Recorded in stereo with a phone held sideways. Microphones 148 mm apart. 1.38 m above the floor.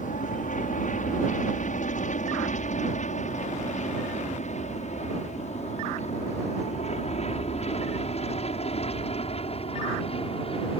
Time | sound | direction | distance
0.0 | an aircraft | 60° left (ahead or behind) | ?